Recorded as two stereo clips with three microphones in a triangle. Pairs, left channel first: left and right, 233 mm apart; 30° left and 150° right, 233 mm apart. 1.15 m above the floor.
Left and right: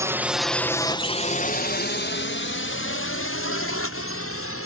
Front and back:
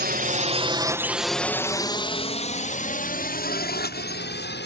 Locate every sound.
0.0 s a drone: 160° right; by 4.7 s 70° left